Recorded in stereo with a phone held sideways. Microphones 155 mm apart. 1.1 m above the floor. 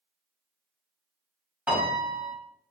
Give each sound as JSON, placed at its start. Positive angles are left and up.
{"t": 1.7, "sound": "a piano", "side_deg": -10, "distance_m": 1.2}